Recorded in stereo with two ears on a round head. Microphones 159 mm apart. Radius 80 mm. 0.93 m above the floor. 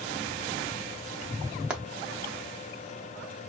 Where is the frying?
5° right (ahead or behind), 0.6 m.